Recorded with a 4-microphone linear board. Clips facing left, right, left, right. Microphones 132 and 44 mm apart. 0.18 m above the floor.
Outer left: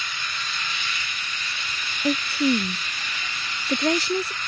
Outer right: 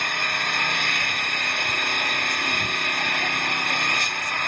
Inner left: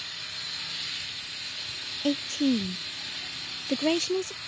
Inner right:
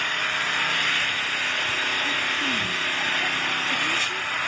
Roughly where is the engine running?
Right.